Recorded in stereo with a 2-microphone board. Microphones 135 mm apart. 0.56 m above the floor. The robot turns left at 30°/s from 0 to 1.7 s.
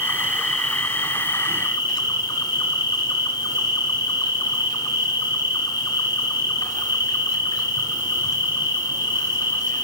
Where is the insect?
160° right, 1.3 m; by 9.9 s 150° left, 1.3 m.